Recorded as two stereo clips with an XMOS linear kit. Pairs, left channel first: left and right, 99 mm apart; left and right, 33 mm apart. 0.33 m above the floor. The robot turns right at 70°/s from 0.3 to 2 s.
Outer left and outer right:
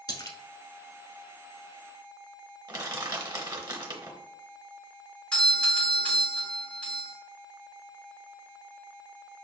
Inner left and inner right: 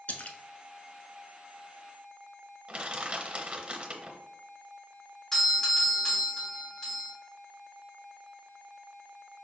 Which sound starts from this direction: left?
A splash, at 0.1 s.